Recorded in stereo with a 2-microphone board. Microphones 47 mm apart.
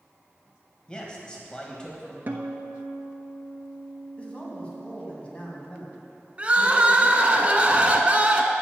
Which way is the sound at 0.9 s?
20° left (ahead or behind).